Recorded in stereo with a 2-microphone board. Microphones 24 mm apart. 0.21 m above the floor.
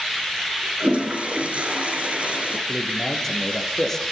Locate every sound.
0.8 s a toilet flushing: 65° right (ahead or behind), 3.5 m
2.7 s a man speaking: 15° left (ahead or behind), 4.5 m